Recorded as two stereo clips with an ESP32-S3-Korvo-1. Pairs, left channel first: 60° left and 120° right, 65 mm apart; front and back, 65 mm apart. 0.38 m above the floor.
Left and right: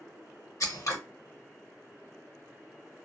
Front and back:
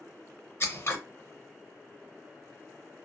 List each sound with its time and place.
0.6 s scissors: 40° left, 0.6 m